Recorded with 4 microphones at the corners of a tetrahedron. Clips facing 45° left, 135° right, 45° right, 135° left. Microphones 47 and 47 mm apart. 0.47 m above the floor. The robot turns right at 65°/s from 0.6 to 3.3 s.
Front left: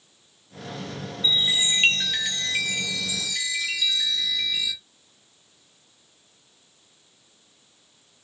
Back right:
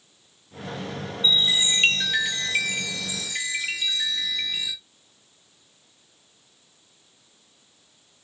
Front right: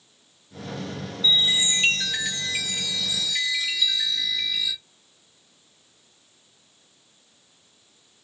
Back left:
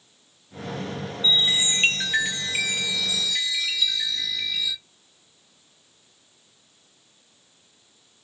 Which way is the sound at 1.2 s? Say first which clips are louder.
Back right 1 dB, even; 90° left.